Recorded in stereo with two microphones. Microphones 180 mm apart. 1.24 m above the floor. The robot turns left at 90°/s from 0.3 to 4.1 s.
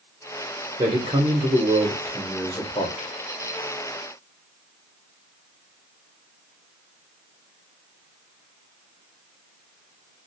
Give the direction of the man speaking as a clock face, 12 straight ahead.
2 o'clock.